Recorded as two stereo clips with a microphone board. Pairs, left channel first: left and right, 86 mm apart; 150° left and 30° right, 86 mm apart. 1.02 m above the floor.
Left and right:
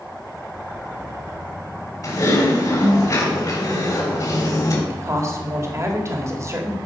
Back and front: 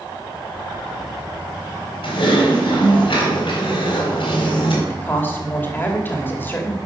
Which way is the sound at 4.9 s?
145° right.